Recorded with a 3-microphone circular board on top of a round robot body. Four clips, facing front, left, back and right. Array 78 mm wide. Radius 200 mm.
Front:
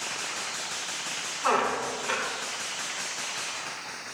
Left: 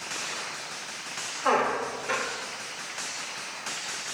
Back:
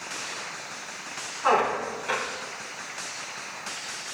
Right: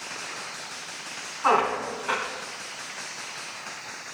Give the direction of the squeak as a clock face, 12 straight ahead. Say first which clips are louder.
Right 2 dB, back 3 dB; 3 o'clock.